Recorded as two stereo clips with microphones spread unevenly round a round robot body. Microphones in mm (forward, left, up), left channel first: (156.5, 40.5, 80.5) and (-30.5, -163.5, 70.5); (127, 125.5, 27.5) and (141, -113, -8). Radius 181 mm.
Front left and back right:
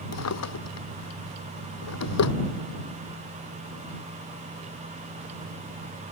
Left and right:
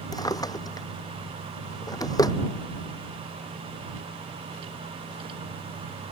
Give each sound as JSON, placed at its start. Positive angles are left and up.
{"t": 0.1, "sound": "a drawer", "azimuth_deg": 20}